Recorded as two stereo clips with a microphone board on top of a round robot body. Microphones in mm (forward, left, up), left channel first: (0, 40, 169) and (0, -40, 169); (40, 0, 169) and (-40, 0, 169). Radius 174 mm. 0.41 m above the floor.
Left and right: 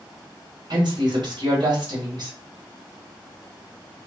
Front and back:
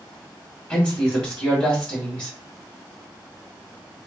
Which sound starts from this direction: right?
A woman speaking, at 0.7 s.